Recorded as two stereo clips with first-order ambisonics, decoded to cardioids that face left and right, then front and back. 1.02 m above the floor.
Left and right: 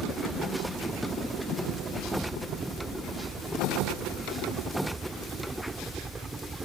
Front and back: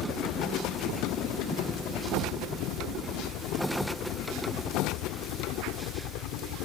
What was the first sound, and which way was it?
A helicopter, 25° right.